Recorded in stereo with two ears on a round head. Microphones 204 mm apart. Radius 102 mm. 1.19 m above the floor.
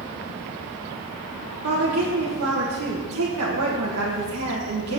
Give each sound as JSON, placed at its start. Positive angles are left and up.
{"t": 1.6, "sound": "a woman speaking", "side_deg": -65, "distance_m": 1.5}